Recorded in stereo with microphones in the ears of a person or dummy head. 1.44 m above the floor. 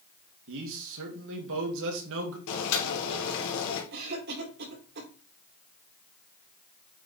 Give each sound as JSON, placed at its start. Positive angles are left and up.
{"t": 0.5, "sound": "a man speaking", "side_deg": -70, "distance_m": 3.0}
{"t": 2.5, "sound": "boiling", "side_deg": 70, "distance_m": 2.5}
{"t": 3.9, "sound": "a cough", "side_deg": -55, "distance_m": 4.5}